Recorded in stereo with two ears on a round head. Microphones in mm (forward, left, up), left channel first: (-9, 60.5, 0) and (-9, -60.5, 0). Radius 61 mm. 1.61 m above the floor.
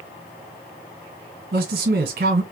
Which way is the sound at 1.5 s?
75° right (ahead or behind).